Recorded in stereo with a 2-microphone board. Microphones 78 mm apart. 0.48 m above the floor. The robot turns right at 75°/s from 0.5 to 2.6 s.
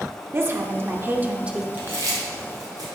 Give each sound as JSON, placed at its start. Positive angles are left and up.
{"t": 0.3, "sound": "a woman speaking", "azimuth_deg": -100, "distance_m": 0.8}
{"t": 1.7, "sound": "chewing", "side_deg": -25, "distance_m": 2.5}